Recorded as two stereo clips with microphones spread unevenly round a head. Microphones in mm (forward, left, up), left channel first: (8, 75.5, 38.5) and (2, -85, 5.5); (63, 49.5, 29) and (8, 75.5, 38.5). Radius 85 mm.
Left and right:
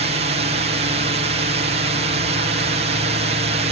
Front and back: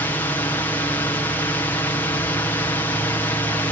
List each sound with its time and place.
0.0 s a drone: 75° right